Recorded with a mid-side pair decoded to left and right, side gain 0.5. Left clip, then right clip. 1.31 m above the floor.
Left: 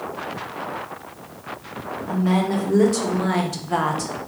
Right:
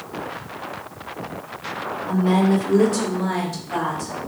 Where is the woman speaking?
Straight ahead, 1.2 m; by 4.1 s 65° left, 0.6 m.